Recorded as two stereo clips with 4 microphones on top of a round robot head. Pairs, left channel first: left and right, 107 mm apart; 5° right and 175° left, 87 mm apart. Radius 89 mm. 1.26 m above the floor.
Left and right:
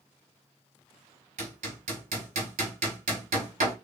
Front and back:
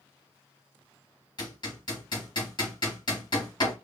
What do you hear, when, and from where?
1.4 s hammering: 65° right, 1.3 m